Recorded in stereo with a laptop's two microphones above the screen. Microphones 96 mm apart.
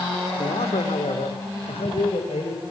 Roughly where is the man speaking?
Left.